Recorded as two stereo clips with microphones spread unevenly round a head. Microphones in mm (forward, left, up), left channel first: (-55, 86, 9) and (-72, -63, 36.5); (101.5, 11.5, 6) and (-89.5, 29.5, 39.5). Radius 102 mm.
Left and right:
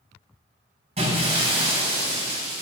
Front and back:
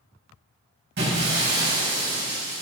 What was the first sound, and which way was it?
Breaking glass, 145° right.